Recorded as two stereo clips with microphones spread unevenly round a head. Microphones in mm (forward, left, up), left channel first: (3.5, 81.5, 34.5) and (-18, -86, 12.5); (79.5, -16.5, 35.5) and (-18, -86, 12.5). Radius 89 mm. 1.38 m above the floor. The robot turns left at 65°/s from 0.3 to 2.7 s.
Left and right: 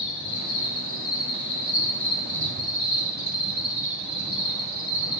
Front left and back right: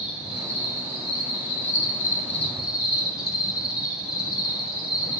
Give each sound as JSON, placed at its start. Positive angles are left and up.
{"t": 0.0, "sound": "an insect", "azimuth_deg": 135, "distance_m": 3.0}